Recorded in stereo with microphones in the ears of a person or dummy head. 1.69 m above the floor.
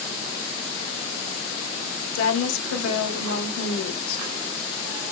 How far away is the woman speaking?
About 0.8 m.